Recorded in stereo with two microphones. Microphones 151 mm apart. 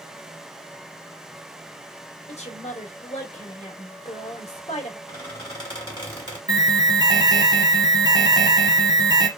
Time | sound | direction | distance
2.3 | a woman speaking | 50° left (ahead or behind) | 1.6 m
5.1 | a squeak | 30° left (ahead or behind) | 1.7 m
6.5 | an alarm | 30° right (ahead or behind) | 0.9 m